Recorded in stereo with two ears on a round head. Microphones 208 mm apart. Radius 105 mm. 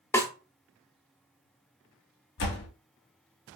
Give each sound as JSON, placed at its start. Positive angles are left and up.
{"t": 0.1, "sound": "a snare drum", "side_deg": 10, "distance_m": 0.5}
{"t": 2.4, "sound": "a door slam", "side_deg": 50, "distance_m": 0.8}